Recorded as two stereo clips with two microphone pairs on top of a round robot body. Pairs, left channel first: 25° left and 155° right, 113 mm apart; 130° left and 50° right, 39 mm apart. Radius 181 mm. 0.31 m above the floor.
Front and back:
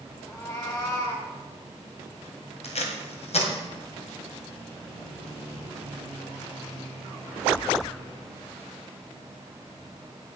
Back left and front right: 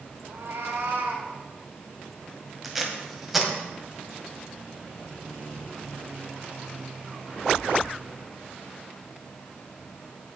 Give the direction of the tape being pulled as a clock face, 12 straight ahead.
11 o'clock.